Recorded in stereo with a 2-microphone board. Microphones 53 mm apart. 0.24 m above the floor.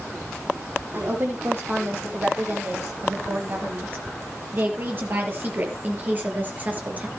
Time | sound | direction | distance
0.9 | a woman speaking | 40° right (ahead or behind) | 10 m